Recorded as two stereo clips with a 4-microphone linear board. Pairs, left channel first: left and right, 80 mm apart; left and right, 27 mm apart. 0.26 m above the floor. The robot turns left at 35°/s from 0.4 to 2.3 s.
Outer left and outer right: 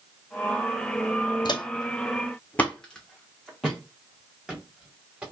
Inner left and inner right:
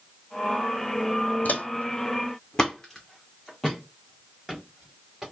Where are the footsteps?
65° left (ahead or behind), 0.6 m; by 5.2 s 15° right (ahead or behind), 2.5 m.